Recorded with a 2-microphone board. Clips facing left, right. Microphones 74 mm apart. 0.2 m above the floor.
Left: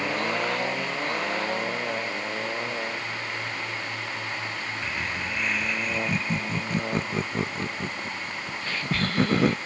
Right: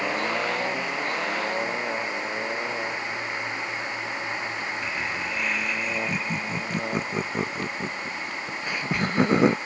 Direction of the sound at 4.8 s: Centre (ahead or behind).